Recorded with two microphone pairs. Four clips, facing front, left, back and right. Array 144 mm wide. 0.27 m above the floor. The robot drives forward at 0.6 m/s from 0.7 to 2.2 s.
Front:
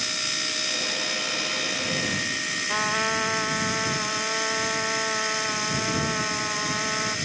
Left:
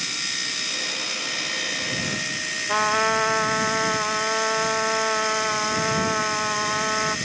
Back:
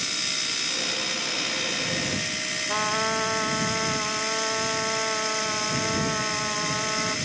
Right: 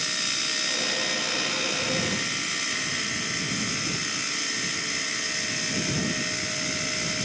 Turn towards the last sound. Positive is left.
turn(degrees=95)